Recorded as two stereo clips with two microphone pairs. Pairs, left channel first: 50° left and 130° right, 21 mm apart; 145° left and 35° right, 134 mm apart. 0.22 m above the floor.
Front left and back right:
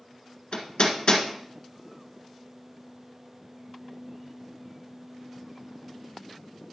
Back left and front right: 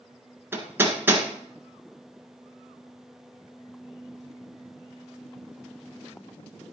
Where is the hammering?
35° left, 1.5 m.